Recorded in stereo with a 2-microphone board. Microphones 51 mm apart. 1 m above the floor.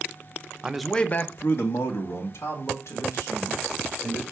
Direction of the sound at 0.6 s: 20° right (ahead or behind).